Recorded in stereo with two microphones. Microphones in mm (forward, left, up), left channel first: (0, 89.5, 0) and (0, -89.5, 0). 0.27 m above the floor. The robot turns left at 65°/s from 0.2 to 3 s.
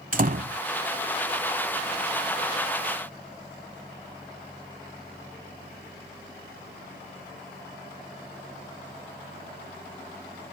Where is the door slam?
50° right (ahead or behind); by 0.6 s 60° right (ahead or behind).